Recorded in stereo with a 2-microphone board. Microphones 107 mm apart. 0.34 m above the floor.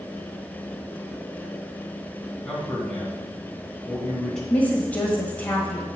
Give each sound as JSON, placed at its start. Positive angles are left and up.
{"t": 2.5, "sound": "a man speaking", "side_deg": 5, "distance_m": 2.5}
{"t": 4.5, "sound": "a woman speaking", "side_deg": 15, "distance_m": 1.5}